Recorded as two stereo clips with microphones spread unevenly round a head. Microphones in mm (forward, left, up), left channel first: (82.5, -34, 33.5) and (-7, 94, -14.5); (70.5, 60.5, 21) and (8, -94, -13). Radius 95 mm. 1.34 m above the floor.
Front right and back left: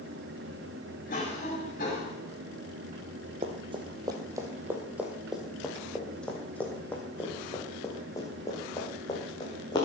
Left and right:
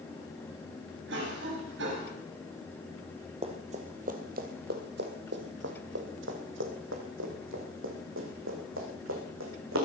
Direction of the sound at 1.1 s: 105° right.